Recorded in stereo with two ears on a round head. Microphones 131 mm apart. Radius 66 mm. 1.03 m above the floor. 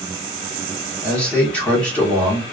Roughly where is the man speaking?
Centre.